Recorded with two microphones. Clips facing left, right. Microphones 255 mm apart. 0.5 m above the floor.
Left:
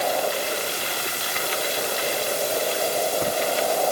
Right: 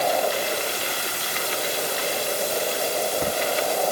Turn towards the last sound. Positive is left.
No sound to turn to.